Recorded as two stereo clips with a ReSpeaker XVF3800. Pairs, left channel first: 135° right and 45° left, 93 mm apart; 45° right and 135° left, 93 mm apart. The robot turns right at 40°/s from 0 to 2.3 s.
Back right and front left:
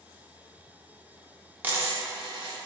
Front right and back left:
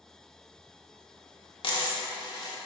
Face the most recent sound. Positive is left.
turn(degrees=0)